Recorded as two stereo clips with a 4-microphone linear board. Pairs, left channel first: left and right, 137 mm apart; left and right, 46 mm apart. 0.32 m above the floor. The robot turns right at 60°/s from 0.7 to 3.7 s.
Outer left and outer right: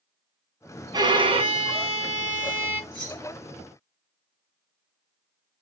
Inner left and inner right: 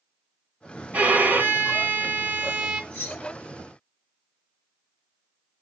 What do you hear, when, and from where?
0.9 s a violin: 130° right, 0.8 m; by 2.8 s 20° right, 0.8 m
2.9 s keys jangling: 40° left (ahead or behind), 3.5 m; by 3.2 s 55° left (ahead or behind), 3.5 m